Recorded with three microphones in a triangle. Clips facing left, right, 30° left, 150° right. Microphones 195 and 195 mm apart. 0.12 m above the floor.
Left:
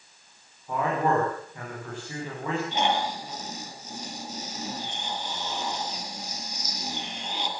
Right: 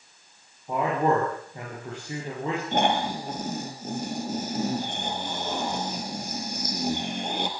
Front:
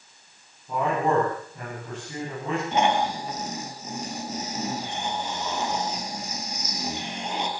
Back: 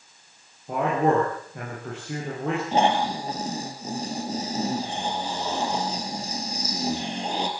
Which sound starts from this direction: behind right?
A man speaking, at 0.7 s.